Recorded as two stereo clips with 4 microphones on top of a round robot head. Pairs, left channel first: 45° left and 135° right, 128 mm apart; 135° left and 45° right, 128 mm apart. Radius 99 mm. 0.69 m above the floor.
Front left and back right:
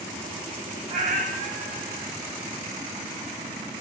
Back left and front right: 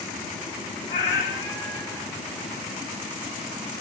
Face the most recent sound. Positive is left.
turn(degrees=-155)